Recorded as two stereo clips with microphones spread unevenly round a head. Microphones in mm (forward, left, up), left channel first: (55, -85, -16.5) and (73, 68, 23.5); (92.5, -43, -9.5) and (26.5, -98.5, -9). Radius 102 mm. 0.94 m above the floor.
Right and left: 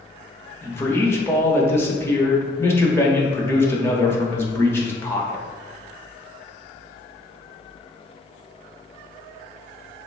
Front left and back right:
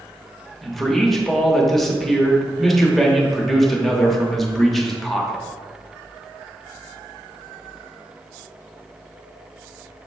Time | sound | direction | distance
0.6 | a man speaking | 45° right | 1.1 m